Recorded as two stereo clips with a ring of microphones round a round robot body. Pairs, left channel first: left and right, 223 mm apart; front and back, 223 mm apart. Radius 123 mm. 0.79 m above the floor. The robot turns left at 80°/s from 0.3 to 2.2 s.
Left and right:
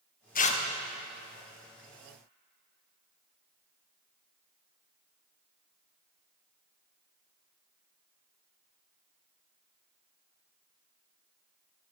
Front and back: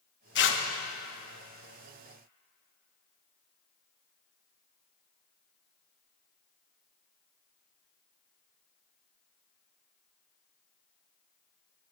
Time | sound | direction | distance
0.3 | tearing paper | 40° left | 0.8 m